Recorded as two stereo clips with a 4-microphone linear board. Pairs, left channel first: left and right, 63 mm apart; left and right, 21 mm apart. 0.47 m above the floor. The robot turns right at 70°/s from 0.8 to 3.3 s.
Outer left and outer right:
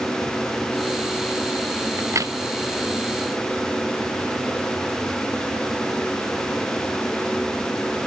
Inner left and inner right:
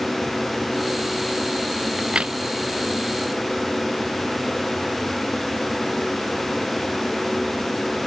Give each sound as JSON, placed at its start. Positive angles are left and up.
{"t": 2.0, "sound": "a crack", "side_deg": -40}